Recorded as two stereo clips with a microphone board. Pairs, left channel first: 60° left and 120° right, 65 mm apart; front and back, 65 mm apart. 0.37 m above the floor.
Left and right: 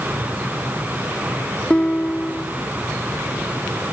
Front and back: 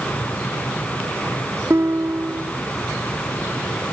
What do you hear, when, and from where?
1.7 s a guitar: 135° left